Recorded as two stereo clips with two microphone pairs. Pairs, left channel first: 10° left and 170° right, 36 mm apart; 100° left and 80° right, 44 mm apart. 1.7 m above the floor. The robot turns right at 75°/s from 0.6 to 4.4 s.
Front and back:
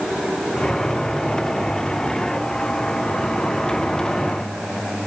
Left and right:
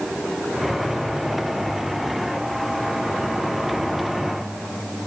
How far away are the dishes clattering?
No dishes clattering in this recording.